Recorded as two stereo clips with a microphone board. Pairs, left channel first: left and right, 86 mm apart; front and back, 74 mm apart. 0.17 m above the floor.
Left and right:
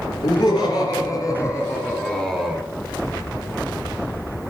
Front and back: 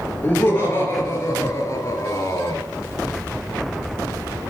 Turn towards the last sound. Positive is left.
turn(degrees=-10)